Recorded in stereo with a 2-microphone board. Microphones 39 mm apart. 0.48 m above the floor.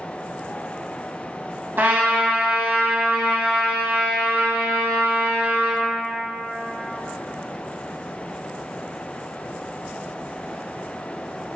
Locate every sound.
1.8 s a trumpet: 70° right (ahead or behind), 0.7 m